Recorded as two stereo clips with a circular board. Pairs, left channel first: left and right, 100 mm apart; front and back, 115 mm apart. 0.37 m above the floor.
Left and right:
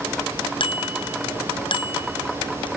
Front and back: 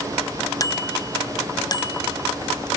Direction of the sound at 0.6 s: 60° left.